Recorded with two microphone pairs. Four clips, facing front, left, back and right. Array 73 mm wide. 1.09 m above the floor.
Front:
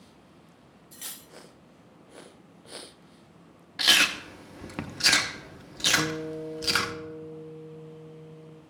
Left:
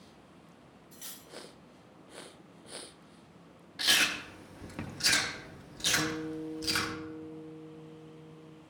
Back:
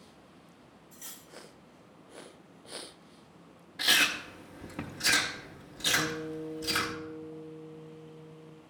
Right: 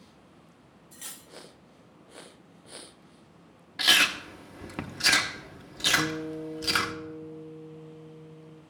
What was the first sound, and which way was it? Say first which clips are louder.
Cutlery clinking: right 4 dB, front 6 dB; 35° right.